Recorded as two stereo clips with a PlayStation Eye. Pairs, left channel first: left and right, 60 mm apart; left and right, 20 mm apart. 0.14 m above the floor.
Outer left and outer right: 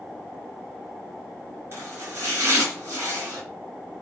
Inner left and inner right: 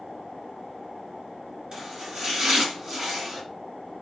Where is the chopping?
45° right (ahead or behind), 1.5 m.